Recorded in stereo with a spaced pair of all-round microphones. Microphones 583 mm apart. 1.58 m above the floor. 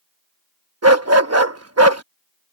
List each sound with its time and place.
0.8 s a dog barking: 25° right (ahead or behind)